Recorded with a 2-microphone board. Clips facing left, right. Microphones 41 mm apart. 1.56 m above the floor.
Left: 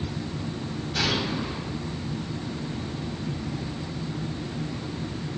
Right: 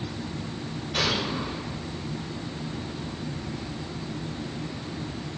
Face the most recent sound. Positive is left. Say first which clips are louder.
# even
turn(degrees=-55)  # may be behind; listen again after turning